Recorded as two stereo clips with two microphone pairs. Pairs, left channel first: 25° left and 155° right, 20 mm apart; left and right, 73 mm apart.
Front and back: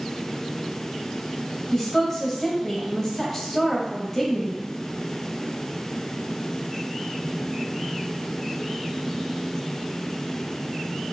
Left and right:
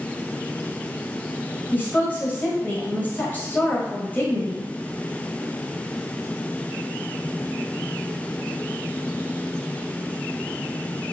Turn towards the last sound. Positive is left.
turn(degrees=80)